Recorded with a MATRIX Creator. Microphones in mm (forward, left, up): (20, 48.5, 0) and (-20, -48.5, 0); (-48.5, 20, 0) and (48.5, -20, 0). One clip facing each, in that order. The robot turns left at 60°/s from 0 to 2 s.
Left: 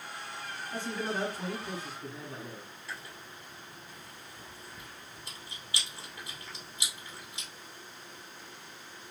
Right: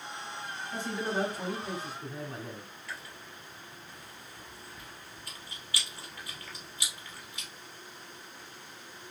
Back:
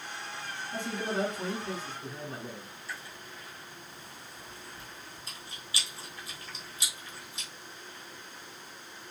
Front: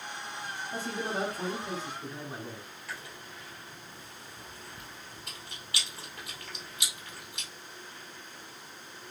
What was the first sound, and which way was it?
A man speaking, 20° right.